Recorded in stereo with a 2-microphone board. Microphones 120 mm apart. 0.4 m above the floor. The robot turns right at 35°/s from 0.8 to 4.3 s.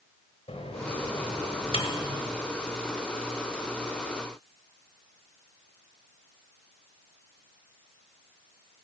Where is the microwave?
55° left (ahead or behind), 1.3 m; by 2.2 s 45° left (ahead or behind), 1.3 m.